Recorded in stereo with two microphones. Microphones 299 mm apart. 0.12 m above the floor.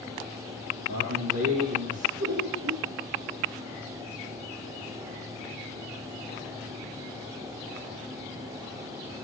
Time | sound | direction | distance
0.9 | a man speaking | 50° right (ahead or behind) | 3 m
2.2 | laughter | 60° right (ahead or behind) | 3 m